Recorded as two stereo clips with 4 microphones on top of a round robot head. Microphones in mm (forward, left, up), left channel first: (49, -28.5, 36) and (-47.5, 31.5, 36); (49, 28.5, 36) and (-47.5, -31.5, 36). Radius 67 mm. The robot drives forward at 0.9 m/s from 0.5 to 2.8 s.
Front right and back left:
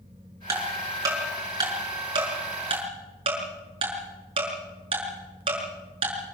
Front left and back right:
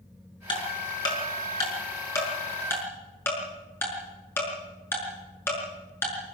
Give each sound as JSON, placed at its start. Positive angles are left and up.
{"t": 0.5, "sound": "ticking", "azimuth_deg": 85, "distance_m": 6.0}